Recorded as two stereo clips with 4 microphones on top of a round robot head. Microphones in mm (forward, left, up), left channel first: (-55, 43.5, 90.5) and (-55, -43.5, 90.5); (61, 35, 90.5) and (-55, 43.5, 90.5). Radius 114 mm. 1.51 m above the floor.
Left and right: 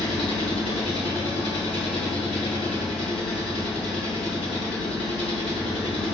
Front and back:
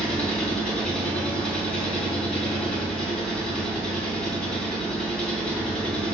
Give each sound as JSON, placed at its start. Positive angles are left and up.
{"t": 0.0, "sound": "an engine running", "azimuth_deg": 75, "distance_m": 3.5}